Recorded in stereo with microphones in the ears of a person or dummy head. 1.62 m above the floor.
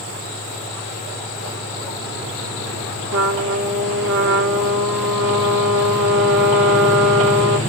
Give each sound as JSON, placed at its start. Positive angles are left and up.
{"t": 3.1, "sound": "a trumpet", "side_deg": -60, "distance_m": 4.0}